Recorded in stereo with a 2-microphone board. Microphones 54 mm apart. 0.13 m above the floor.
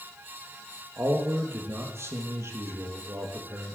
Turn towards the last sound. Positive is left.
turn(degrees=-60)  # may be behind; listen again after turning